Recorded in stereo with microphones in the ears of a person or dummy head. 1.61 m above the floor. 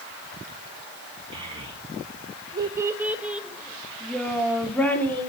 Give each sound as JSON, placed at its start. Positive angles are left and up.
{"t": 1.3, "sound": "a child speaking", "side_deg": -25, "distance_m": 1.5}